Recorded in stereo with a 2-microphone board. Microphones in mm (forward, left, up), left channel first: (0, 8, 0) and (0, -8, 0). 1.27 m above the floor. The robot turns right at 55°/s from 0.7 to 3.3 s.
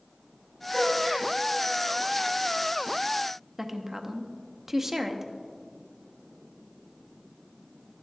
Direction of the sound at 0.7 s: 10° left (ahead or behind).